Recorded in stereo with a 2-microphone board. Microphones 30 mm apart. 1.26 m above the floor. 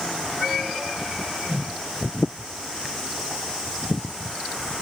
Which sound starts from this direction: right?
A whoosh, at 1.5 s.